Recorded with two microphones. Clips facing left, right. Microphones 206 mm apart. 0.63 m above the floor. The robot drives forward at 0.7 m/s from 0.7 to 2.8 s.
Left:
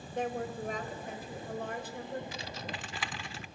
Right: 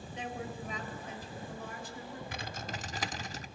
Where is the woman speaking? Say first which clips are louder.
Left 6 dB; 50° left (ahead or behind), 3 m; by 2.2 s 65° left (ahead or behind), 2.5 m.